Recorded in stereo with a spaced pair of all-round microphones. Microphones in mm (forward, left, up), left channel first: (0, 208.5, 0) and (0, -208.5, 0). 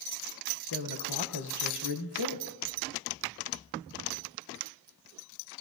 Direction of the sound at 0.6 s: 65° left (ahead or behind).